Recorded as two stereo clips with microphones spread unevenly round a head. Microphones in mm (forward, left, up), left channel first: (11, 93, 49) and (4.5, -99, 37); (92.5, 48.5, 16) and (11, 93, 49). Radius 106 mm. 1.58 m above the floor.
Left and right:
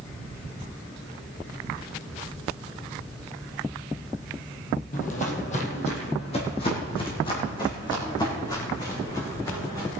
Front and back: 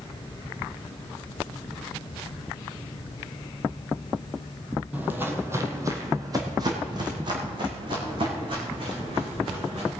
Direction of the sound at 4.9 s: 115° left.